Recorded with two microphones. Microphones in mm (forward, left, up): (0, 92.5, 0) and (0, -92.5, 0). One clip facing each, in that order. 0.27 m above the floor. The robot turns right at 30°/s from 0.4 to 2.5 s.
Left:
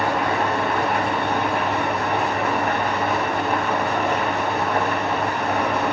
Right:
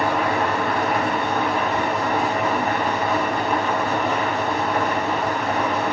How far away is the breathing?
No breathing in this recording.